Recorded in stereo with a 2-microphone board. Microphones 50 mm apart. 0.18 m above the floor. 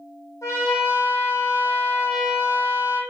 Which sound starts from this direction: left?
A trumpet, at 0.4 s.